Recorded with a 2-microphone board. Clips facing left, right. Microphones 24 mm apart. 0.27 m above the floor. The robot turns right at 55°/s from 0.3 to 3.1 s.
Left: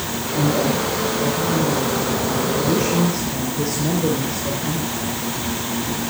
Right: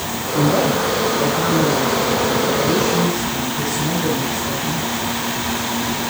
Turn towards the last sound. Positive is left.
turn(degrees=30)